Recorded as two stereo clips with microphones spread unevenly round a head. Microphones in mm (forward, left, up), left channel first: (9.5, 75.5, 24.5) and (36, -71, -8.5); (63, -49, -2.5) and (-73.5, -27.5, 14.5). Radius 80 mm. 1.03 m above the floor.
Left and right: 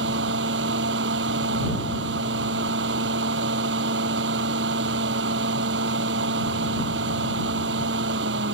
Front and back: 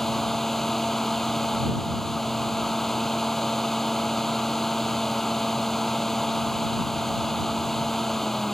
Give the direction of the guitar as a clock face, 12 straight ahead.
I don't hear a guitar.